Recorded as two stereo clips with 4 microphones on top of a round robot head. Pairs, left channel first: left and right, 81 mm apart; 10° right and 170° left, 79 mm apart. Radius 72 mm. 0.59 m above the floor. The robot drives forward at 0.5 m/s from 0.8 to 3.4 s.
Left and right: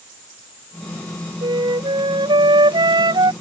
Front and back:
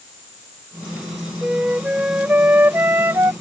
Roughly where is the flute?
Right.